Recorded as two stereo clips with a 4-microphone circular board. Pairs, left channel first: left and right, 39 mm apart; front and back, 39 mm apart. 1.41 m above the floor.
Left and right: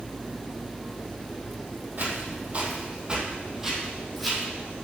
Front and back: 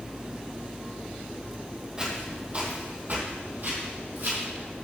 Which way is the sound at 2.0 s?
115° right.